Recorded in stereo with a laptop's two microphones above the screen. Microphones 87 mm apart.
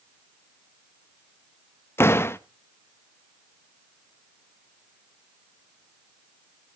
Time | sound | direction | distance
2.0 | a door slam | 30° left (ahead or behind) | 0.7 m